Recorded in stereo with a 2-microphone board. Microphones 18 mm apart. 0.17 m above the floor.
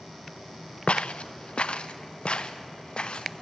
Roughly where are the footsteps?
Left.